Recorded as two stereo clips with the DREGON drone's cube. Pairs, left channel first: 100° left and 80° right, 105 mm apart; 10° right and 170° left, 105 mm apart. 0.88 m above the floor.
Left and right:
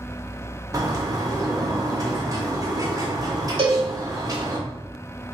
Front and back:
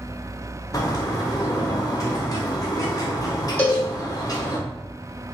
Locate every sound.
0.7 s a bird: 40° right, 0.6 m
3.6 s a cowbell: 85° right, 0.9 m